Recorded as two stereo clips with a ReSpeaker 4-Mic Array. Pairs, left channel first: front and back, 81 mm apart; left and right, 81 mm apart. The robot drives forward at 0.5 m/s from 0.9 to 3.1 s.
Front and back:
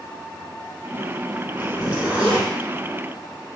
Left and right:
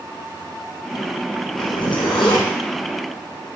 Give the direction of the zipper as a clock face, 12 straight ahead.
9 o'clock.